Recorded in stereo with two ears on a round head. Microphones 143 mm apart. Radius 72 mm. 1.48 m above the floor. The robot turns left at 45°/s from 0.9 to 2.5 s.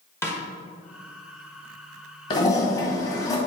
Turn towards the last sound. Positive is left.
turn(degrees=20)  # may be behind; listen again after turning